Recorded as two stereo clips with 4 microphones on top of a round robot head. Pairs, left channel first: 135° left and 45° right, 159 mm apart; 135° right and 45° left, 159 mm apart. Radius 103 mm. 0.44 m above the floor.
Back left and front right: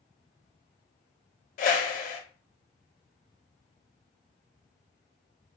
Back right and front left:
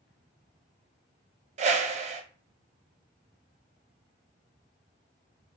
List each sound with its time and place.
1.6 s a whoosh: 95° left, 0.5 m